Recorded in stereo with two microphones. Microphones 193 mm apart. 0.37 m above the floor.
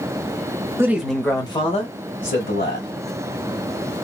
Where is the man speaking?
15° right (ahead or behind), 0.9 m; by 2.9 s 50° left (ahead or behind), 1.9 m.